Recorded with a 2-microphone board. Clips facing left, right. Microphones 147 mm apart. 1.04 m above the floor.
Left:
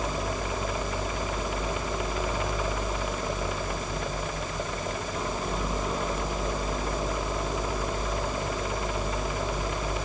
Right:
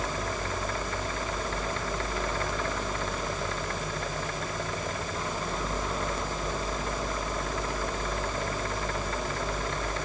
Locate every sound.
Only background noise.